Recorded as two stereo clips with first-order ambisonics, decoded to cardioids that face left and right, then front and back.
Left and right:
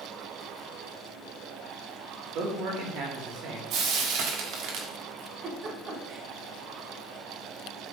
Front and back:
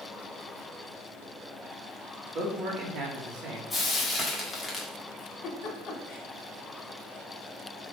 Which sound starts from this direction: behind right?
A man speaking, at 2.4 s.